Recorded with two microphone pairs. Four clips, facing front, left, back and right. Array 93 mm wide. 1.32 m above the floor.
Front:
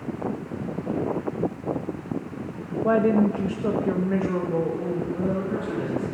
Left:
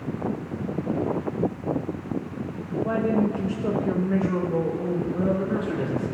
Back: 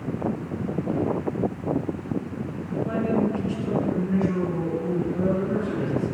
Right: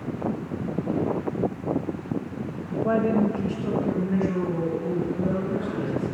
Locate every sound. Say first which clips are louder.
2.8 s a woman speaking: right 1 dB, front 5 dB; 20° right, 0.5 m; by 5.0 s 45° left, 1.8 m
5.1 s a man speaking: left 2 dB, back 2 dB; 85° left, 2 m